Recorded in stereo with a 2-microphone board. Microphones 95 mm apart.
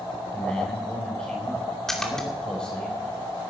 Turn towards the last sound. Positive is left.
turn(degrees=5)  # may be behind; listen again after turning